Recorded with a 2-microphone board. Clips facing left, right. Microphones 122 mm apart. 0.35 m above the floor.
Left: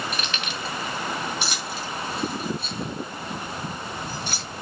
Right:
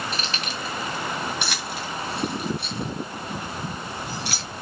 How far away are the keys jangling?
About 1.9 m.